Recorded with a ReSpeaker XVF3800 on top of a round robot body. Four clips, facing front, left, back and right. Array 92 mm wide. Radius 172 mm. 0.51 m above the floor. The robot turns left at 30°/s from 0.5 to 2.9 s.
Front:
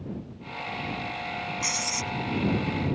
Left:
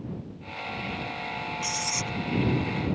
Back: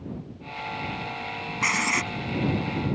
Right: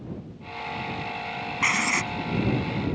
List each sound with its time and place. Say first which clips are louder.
1.6 s writing: right 7 dB, back 7 dB; 125° right; by 2.1 s 140° right